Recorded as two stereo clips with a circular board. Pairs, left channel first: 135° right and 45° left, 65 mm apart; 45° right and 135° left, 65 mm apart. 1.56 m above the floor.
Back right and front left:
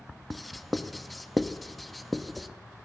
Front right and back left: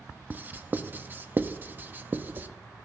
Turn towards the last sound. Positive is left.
turn(degrees=135)